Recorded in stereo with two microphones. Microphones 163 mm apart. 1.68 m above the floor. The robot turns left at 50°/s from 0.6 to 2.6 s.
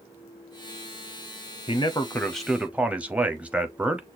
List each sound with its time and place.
1.7 s a man speaking: 40° left, 0.7 m; by 4.1 s 10° right, 0.7 m